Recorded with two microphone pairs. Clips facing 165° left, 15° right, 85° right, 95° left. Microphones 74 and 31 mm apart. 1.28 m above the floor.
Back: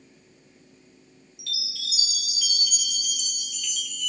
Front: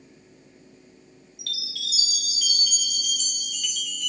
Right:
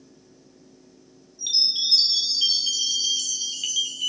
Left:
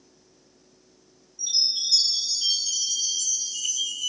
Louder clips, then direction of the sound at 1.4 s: Front 1 dB, right 3 dB; 50° right.